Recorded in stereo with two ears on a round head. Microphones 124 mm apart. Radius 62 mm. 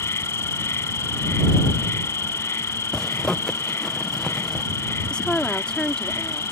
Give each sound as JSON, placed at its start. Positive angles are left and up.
{"t": 0.0, "sound": "an insect", "side_deg": 20}
{"t": 2.9, "sound": "a zipper", "side_deg": 5}
{"t": 5.1, "sound": "a woman speaking", "side_deg": 5}